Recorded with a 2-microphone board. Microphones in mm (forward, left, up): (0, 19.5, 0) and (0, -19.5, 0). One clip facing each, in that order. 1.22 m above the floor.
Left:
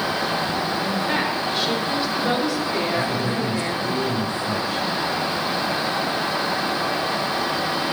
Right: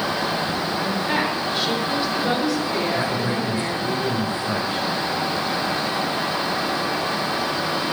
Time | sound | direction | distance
0.8 | a woman speaking | 5° right (ahead or behind) | 5 m
2.9 | a man speaking | 25° right (ahead or behind) | 5.5 m